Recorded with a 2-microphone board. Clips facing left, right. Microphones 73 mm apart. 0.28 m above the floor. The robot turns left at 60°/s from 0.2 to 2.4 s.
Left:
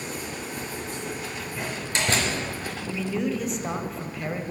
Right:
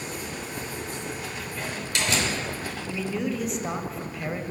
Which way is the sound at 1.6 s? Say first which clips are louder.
Left 1 dB; 10° left (ahead or behind).